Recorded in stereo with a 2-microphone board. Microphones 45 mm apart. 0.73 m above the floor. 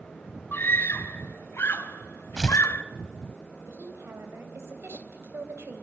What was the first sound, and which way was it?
A scream, 55° left (ahead or behind).